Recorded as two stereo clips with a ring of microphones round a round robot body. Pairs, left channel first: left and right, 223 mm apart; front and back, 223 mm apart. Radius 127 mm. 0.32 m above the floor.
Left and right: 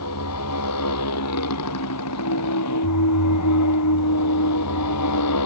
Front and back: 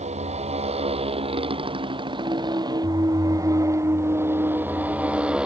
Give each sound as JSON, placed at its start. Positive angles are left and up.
{"t": 0.0, "sound": "a motorcycle", "azimuth_deg": 120}
{"t": 2.2, "sound": "a clunk", "azimuth_deg": 100}